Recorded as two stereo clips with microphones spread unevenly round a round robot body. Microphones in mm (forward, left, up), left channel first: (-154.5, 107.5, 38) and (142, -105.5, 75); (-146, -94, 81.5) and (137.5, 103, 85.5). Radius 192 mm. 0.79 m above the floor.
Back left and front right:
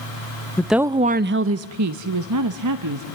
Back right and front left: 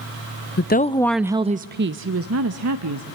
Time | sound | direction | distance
0.6 | a woman speaking | 145° right | 0.6 m